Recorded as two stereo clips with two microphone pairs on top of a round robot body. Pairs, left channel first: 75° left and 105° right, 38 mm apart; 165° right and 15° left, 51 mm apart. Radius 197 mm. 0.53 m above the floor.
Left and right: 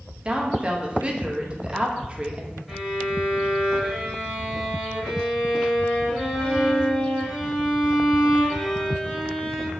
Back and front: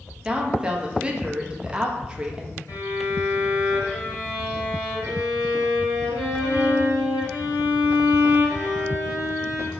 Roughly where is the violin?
Behind.